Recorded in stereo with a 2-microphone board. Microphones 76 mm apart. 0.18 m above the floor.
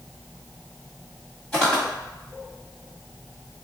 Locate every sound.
1.5 s footsteps: 15° left (ahead or behind), 1.5 m